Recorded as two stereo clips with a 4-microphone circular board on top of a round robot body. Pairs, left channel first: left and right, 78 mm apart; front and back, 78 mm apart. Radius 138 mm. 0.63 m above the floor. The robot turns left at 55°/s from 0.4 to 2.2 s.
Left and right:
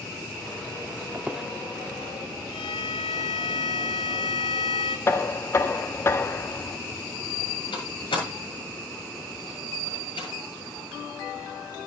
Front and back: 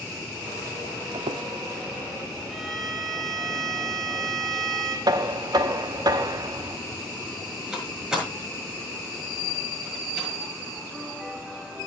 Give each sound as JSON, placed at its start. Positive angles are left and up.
{"t": 1.1, "sound": "a squeak", "azimuth_deg": -160, "distance_m": 0.5}
{"t": 2.5, "sound": "a violin", "azimuth_deg": 90, "distance_m": 2.0}
{"t": 5.1, "sound": "knocking", "azimuth_deg": 145, "distance_m": 1.1}
{"t": 7.7, "sound": "a door slam", "azimuth_deg": 100, "distance_m": 7.5}